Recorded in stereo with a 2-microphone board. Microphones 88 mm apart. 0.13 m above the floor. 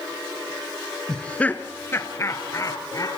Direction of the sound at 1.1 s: 5° left (ahead or behind).